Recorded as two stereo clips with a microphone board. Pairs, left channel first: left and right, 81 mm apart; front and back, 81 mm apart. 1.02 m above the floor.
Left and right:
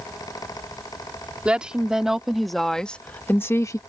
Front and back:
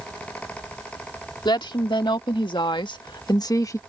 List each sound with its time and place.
1.4 s a woman speaking: 15° right; by 3.8 s 50° left